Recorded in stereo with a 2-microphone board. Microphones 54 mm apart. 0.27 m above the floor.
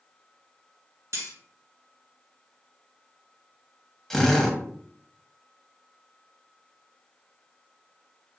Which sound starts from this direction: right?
Cutlery clinking, at 1.1 s.